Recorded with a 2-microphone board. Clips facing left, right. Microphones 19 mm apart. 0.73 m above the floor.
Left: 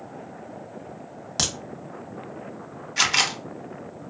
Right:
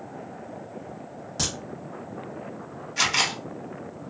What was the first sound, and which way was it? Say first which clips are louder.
A crack: left 3 dB; 55° left (ahead or behind).